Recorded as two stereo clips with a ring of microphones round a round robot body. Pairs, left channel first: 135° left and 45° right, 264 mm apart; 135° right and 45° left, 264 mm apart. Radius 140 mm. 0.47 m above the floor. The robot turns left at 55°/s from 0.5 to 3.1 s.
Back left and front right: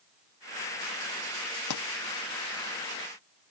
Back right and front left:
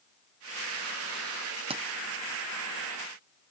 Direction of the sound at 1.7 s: 115° left.